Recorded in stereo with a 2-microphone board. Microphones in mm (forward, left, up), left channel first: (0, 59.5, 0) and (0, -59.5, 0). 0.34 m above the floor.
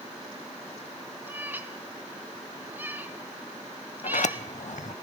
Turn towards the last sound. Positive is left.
turn(degrees=80)